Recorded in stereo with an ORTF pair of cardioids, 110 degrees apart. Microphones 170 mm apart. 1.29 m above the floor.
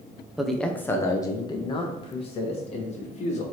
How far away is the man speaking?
About 0.8 m.